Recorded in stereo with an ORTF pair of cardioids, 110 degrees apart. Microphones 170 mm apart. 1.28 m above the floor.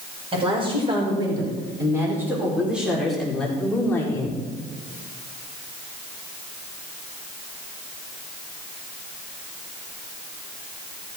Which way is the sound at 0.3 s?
30° right.